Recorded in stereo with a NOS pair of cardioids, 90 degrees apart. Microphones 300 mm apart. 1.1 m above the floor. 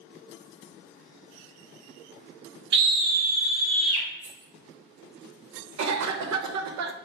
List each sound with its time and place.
2.7 s a scream: 35° right, 1.4 m; by 4.1 s 20° right, 3 m
4.2 s keys jangling: 25° right, 2.5 m
5.8 s a cough: 70° right, 0.8 m